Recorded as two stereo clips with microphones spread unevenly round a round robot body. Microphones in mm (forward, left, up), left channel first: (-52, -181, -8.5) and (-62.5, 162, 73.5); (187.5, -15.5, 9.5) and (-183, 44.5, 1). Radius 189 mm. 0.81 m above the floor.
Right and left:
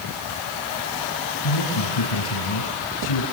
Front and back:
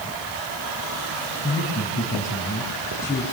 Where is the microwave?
I don't hear a microwave.